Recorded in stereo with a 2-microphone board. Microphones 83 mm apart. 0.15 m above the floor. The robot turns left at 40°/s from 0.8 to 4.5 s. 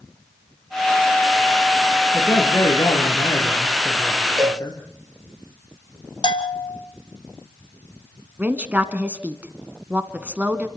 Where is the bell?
65° left (ahead or behind), 1.5 m.